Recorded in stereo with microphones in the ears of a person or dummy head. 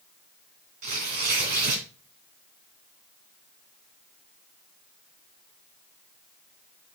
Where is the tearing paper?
45° right (ahead or behind), 2.5 m.